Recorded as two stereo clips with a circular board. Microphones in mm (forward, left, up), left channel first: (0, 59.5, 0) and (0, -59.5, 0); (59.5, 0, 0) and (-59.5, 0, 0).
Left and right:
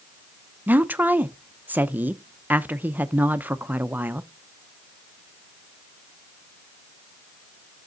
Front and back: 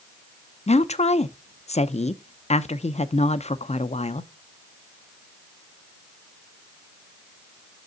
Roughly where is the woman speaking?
Ahead.